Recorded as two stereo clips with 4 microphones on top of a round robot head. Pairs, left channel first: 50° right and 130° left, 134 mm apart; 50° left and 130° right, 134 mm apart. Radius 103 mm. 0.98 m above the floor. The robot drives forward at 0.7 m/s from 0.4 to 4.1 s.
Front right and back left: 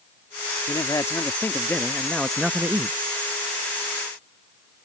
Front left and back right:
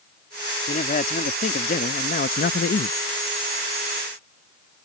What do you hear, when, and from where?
0.7 s a man speaking: 15° left; by 3.0 s 65° left